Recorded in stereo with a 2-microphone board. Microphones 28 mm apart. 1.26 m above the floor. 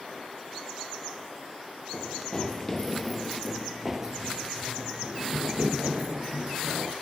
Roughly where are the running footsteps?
Left.